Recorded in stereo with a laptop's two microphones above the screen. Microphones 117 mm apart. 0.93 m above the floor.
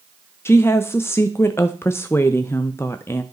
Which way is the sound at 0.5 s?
20° left (ahead or behind).